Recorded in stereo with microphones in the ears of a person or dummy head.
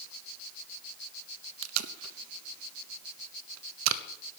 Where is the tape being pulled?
75° right (ahead or behind), 0.9 m.